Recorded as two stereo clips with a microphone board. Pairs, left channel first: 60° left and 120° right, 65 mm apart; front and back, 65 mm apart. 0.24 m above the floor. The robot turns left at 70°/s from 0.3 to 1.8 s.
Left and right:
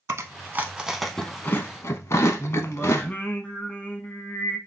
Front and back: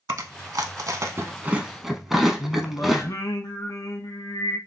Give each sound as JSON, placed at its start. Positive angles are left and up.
{"t": 0.1, "sound": "chewing", "azimuth_deg": -160, "distance_m": 0.5}
{"t": 2.4, "sound": "singing", "azimuth_deg": -5, "distance_m": 0.5}